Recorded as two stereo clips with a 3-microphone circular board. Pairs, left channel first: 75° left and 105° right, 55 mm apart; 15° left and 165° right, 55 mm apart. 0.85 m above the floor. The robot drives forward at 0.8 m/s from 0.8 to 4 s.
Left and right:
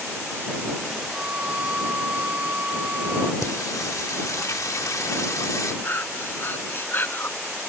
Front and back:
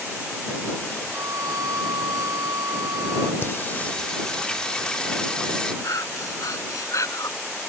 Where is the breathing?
25° left.